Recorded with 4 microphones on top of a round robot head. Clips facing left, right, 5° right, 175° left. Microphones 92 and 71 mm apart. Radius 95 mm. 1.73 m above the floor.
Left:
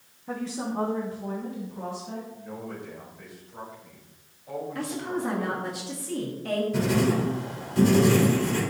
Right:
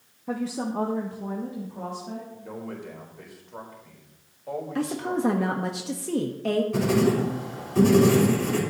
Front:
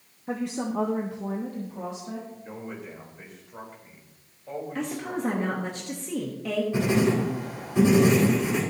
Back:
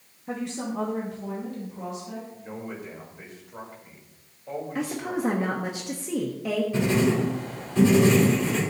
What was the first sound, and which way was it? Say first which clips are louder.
A woman speaking: right 2 dB, front 2 dB; 75° right.